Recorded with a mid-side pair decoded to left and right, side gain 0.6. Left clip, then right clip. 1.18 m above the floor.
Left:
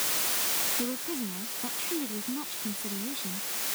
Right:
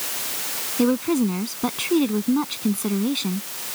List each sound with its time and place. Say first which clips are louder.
0.8 s a woman speaking: right 13 dB; 55° right